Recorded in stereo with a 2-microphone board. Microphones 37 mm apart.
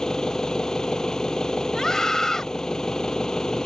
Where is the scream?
15° left (ahead or behind).